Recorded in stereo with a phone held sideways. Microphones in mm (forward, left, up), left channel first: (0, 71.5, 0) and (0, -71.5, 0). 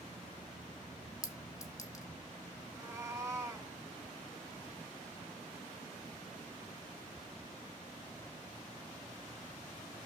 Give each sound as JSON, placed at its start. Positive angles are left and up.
{"t": 1.2, "sound": "a clink", "side_deg": 25, "distance_m": 0.9}
{"t": 2.7, "sound": "a cat meowing", "side_deg": -20, "distance_m": 1.4}